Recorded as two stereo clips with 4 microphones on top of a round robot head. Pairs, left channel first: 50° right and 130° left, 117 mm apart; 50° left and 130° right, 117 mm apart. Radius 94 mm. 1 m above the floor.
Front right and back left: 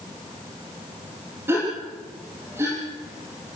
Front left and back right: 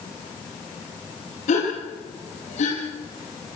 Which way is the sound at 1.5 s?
60° left.